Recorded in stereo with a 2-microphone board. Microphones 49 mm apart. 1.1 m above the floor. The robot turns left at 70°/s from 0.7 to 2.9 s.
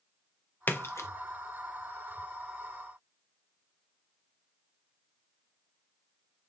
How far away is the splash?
About 0.5 m.